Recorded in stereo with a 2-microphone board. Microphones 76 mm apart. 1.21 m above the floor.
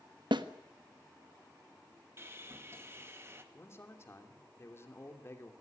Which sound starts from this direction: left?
A man speaking, at 3.5 s.